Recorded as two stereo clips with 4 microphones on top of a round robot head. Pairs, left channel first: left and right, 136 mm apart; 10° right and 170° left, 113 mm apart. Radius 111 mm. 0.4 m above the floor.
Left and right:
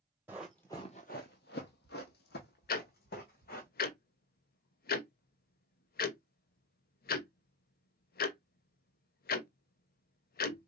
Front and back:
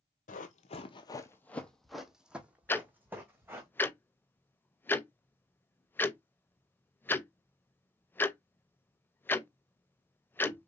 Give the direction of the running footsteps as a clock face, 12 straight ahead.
12 o'clock.